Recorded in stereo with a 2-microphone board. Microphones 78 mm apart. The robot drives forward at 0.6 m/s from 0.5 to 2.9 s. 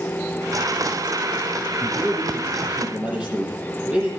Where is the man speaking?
15° right (ahead or behind), 9 m.